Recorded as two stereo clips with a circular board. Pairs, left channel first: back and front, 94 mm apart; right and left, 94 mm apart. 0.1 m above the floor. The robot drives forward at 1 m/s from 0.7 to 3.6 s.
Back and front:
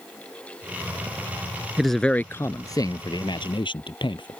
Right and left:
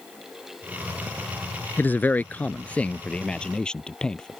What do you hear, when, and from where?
1.8 s a man speaking: 75° right; by 4.4 s 170° right